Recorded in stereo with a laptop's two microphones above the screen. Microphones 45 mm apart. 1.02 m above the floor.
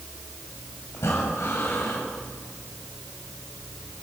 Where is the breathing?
85° left, 7 m.